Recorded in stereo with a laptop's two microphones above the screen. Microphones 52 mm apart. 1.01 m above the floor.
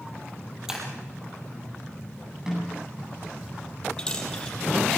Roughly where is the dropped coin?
Centre.